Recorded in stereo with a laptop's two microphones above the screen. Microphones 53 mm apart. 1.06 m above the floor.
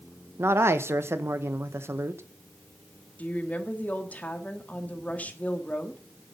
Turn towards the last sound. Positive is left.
turn(degrees=25)  # may be behind; listen again after turning